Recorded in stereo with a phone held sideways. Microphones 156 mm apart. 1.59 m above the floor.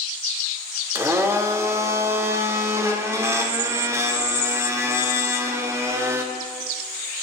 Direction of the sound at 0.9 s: 15° right (ahead or behind).